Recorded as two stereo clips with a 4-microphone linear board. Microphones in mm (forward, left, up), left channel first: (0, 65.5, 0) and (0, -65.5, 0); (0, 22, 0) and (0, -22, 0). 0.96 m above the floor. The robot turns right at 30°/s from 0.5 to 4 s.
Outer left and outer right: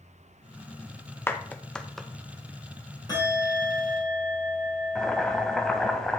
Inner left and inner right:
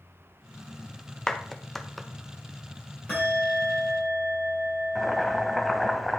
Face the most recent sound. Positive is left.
turn(degrees=5)  # may be behind; listen again after turning